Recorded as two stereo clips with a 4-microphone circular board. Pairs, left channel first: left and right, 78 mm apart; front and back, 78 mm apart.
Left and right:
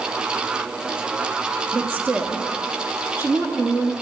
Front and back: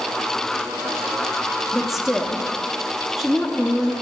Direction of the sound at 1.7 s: 100° right.